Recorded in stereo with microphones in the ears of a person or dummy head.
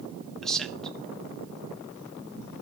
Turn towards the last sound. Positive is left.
turn(degrees=5)  # may be behind; listen again after turning